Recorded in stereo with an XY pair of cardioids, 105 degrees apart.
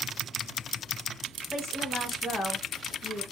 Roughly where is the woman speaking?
Ahead left.